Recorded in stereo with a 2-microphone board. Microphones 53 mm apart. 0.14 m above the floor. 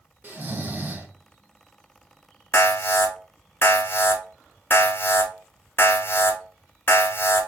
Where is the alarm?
45° left (ahead or behind), 1.0 m.